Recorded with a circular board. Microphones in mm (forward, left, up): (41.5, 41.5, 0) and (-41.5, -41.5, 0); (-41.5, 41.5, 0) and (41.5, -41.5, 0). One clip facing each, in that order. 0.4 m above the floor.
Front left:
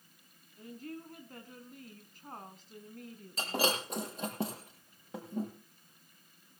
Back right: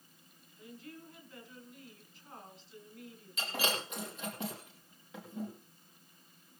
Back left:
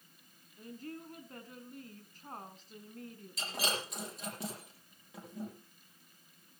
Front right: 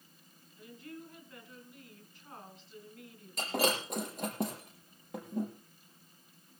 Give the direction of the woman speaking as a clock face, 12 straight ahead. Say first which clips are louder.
Front left 5 dB, back left 2 dB; 9 o'clock.